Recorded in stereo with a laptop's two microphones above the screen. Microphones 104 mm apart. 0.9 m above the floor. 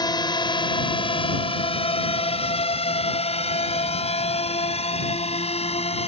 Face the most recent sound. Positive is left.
turn(degrees=80)